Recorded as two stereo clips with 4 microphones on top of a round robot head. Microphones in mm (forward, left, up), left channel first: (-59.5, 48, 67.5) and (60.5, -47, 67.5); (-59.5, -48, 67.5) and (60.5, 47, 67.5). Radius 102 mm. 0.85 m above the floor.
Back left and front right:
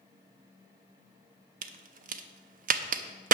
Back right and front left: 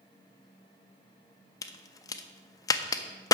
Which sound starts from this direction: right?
A crack, at 1.6 s.